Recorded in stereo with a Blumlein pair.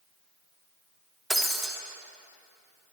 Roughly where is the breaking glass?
Ahead.